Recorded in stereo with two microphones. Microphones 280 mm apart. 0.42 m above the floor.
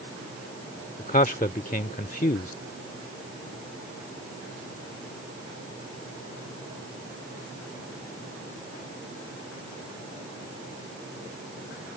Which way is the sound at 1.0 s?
30° left (ahead or behind).